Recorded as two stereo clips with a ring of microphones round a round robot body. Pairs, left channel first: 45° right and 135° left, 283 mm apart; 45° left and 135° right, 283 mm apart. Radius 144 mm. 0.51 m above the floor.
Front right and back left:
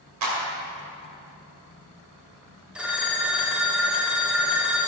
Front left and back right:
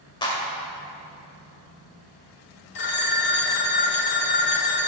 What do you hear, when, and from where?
0.2 s a clap: 120° left, 2 m
2.8 s a phone ringing: 50° left, 1.0 m